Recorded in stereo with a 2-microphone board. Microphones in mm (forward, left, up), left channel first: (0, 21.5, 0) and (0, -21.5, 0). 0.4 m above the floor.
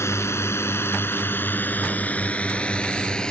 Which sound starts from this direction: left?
A drone, at 0.0 s.